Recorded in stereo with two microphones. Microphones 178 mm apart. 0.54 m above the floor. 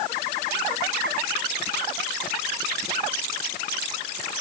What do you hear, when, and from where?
Only background noise.